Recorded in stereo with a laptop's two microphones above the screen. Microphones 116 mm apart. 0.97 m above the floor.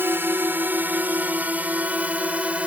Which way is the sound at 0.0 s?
20° right (ahead or behind).